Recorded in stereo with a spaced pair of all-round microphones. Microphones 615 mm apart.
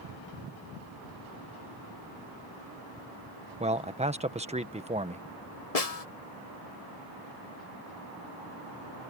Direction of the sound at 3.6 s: 10° right (ahead or behind).